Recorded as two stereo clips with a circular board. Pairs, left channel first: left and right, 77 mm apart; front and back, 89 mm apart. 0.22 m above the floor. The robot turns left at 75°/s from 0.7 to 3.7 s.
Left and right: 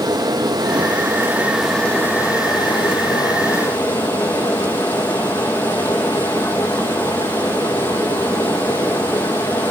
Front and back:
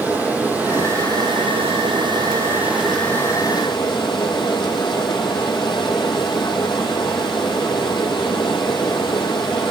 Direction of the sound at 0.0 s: 110° right.